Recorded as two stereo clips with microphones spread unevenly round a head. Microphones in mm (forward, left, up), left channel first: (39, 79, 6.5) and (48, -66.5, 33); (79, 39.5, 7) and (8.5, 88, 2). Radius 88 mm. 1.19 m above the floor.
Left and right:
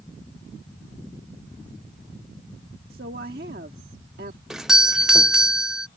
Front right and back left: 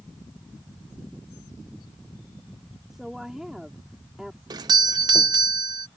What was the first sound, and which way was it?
A woman speaking, 125° right.